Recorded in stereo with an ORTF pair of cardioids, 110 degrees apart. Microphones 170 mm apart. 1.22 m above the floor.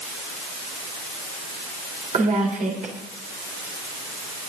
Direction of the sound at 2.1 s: 45° right.